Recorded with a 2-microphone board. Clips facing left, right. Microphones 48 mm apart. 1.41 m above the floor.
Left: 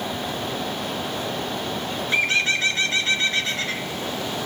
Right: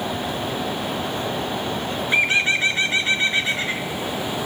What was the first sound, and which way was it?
A bird, 20° right (ahead or behind).